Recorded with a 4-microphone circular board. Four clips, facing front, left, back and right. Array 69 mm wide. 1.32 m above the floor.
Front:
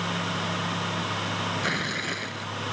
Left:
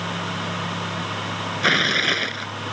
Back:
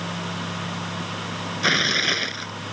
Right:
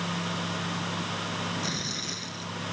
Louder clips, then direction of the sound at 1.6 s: Left 15 dB, back 6 dB; 110° left.